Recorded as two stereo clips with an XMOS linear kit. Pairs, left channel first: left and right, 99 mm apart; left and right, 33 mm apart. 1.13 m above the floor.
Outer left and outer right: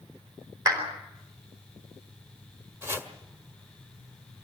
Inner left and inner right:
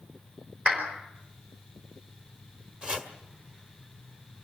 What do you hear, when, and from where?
0.7 s a clap: 40° right (ahead or behind), 4.5 m
2.8 s chopping: 25° right (ahead or behind), 1.6 m